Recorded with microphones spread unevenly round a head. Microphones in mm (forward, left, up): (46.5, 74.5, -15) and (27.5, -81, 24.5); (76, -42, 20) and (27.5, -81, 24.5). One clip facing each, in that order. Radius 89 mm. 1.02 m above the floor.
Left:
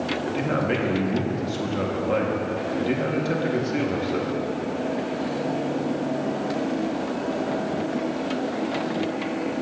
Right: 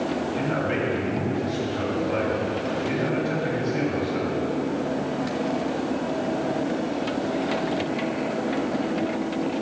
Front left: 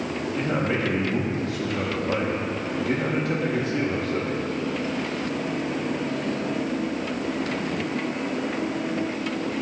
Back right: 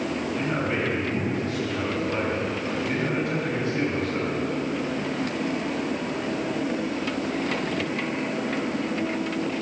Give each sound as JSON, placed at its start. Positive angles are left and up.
{"t": 0.3, "sound": "a man speaking", "azimuth_deg": 70, "distance_m": 1.6}